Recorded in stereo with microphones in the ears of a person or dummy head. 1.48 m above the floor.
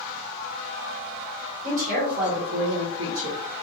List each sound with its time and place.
1.6 s a woman speaking: 50° right (ahead or behind), 1.6 m; by 3.4 s 60° right (ahead or behind), 1.0 m